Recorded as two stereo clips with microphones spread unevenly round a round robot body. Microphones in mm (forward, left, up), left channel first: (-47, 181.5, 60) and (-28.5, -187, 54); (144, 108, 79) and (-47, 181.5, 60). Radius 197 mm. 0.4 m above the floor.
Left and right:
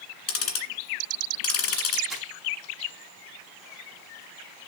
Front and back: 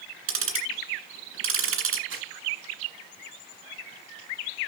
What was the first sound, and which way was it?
Ticking, 145° left.